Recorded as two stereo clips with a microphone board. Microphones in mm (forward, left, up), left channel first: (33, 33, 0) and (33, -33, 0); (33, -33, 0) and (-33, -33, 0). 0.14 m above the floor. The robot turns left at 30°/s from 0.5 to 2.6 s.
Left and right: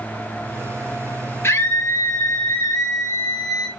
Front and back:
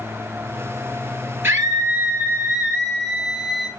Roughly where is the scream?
Behind left.